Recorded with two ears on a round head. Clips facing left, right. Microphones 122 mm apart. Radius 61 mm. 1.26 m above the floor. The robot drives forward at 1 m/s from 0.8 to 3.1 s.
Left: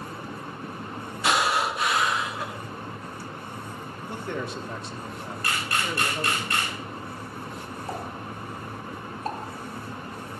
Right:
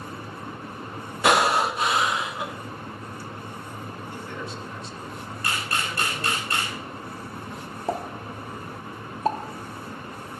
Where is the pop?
60° right (ahead or behind), 1.1 m.